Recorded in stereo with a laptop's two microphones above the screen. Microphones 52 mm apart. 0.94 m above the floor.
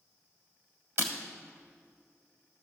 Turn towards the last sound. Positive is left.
turn(degrees=-55)  # may be behind; listen again after turning